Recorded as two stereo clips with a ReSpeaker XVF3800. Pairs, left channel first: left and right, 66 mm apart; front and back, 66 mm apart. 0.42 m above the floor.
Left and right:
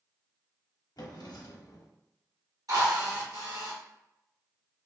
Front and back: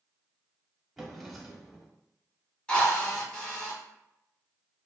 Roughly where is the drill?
Right.